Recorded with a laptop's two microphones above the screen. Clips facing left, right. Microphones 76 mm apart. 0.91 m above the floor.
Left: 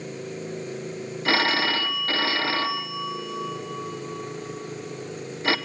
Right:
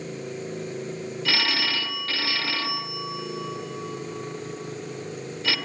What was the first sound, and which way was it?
A phone ringing, 35° left (ahead or behind).